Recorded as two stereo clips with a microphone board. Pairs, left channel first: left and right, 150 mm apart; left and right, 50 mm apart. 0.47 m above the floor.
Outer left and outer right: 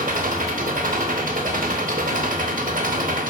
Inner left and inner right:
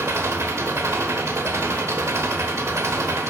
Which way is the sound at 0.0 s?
65° right (ahead or behind).